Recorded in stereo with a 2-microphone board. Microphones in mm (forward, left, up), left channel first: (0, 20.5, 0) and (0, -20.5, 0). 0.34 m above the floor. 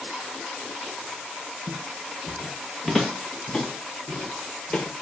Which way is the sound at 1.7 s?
20° right (ahead or behind).